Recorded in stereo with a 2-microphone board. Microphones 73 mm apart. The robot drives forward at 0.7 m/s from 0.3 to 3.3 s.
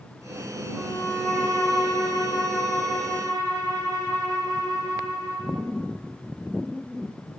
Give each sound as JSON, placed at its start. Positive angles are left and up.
{"t": 0.7, "sound": "a violin", "side_deg": -55, "distance_m": 3.5}